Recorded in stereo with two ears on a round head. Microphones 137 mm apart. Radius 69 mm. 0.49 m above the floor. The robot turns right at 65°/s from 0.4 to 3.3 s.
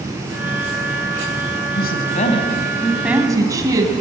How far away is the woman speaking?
About 4.5 m.